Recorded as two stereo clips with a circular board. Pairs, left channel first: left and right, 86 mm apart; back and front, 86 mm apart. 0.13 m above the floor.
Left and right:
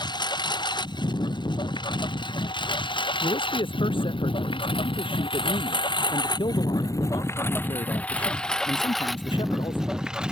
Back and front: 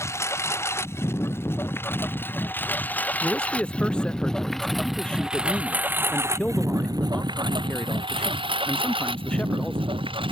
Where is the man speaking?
100° left.